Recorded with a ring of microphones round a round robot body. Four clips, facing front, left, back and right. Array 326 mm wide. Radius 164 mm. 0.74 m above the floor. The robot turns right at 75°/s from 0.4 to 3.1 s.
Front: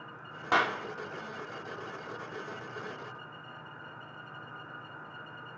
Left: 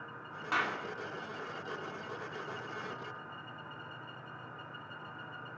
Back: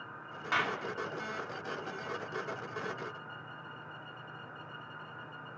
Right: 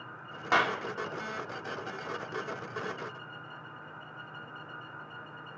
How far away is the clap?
About 2.0 m.